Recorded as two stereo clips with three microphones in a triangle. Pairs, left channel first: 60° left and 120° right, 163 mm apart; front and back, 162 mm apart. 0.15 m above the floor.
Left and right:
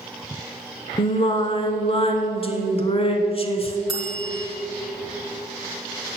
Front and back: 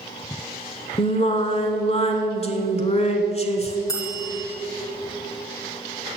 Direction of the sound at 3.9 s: 60° right.